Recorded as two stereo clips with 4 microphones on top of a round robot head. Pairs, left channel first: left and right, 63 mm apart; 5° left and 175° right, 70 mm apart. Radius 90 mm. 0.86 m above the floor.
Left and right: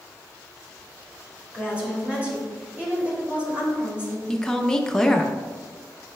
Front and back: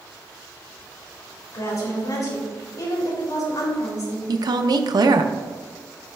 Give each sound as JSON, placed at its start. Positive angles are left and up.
{"t": 1.5, "sound": "a woman speaking", "azimuth_deg": -25, "distance_m": 2.5}
{"t": 4.3, "sound": "a woman speaking", "azimuth_deg": 170, "distance_m": 0.6}